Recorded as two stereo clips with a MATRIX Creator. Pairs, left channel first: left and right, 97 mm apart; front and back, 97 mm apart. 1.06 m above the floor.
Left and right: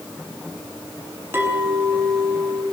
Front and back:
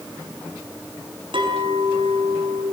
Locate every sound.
1.3 s a clink: 155° right, 5.5 m